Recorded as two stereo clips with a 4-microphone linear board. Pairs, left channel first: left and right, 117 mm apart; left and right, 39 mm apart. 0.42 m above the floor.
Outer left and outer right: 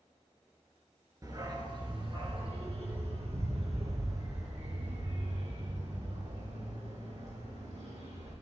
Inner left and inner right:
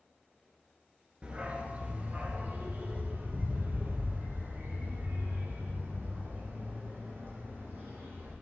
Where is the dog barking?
30° right (ahead or behind), 1.8 m; by 8.3 s 80° right, 6 m.